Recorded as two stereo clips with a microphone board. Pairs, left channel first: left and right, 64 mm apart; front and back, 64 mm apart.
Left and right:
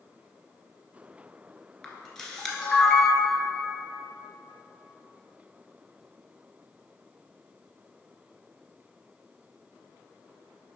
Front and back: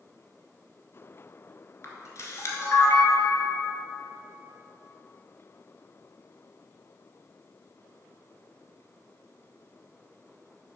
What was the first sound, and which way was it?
A camera shutter, 10° left.